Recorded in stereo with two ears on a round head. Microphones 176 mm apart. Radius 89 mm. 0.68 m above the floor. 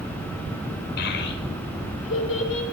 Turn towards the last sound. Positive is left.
turn(degrees=65)  # may be behind; listen again after turning